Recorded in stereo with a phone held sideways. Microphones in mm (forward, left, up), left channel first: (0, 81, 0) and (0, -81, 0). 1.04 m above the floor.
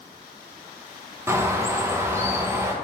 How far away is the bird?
About 0.5 m.